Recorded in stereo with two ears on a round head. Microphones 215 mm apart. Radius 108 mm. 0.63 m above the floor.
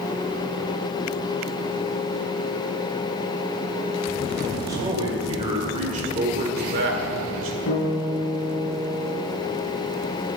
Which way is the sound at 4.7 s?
15° right (ahead or behind).